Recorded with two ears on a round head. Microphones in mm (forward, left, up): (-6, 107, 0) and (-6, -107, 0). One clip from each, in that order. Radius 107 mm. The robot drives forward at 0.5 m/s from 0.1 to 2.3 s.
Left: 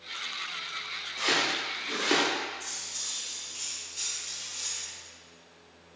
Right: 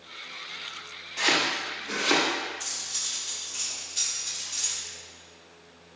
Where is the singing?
No singing in this recording.